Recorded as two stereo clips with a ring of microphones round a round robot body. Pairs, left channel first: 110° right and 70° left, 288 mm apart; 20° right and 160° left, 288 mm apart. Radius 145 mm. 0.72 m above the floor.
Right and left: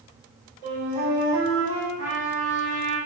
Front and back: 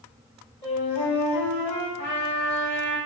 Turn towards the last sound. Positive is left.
turn(degrees=30)